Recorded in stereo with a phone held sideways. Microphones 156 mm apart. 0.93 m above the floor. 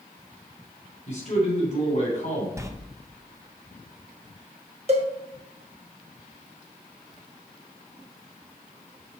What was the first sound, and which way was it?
A man speaking, 50° left (ahead or behind).